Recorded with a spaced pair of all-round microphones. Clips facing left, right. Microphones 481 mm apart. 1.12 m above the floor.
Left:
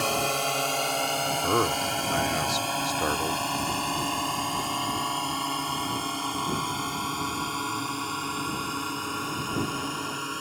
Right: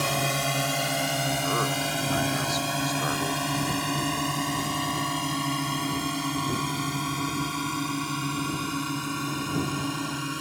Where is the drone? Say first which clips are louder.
Even; 40° right (ahead or behind).